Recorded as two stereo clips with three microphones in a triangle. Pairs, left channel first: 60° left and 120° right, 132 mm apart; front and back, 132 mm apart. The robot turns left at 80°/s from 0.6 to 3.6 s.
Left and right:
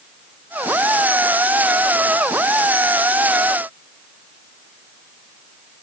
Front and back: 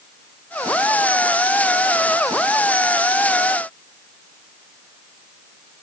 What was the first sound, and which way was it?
Only background noise.